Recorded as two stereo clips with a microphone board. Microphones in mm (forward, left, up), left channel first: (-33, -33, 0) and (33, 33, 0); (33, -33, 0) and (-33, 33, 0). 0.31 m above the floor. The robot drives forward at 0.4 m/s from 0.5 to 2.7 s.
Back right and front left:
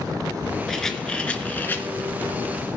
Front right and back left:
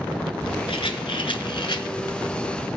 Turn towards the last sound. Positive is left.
turn(degrees=-95)